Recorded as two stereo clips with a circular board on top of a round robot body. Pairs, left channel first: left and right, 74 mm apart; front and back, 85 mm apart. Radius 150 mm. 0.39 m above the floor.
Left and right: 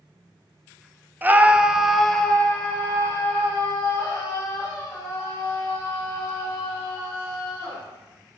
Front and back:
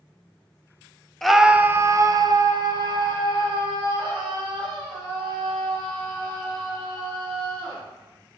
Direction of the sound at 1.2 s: 85° right.